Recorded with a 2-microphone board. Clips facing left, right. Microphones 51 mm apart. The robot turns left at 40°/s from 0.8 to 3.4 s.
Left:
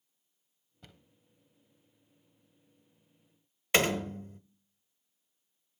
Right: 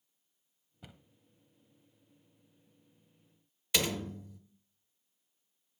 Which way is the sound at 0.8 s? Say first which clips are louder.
Right 2 dB; 10° right (ahead or behind).